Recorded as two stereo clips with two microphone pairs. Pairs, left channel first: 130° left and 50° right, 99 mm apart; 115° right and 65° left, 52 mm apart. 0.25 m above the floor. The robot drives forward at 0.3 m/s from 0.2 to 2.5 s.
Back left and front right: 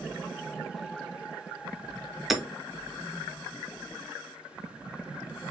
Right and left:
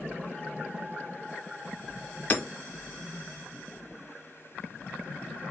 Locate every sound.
2.3 s hammering: 135° right, 0.9 m; by 2.4 s 140° right, 0.9 m